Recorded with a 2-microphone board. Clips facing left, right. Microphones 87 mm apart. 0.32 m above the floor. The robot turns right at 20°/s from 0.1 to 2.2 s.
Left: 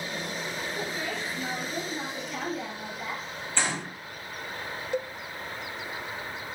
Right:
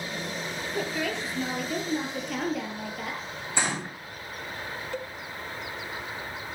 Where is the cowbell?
20° left (ahead or behind), 0.6 m.